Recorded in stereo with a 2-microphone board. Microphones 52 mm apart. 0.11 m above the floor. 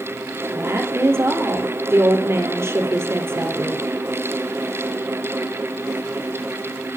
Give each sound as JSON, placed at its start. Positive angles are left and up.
{"t": 0.5, "sound": "a woman speaking", "side_deg": -55, "distance_m": 3.0}